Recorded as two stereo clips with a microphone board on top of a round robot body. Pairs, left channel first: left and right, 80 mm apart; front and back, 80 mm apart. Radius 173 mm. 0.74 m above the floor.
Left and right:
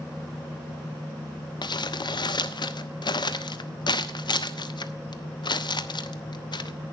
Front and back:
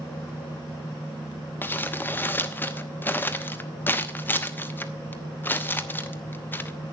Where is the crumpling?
65° left, 1.1 m.